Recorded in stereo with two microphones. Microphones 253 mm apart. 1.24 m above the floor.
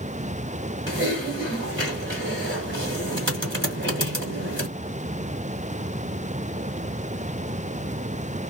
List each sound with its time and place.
0.9 s typing on a keyboard: 50° right (ahead or behind), 1.9 m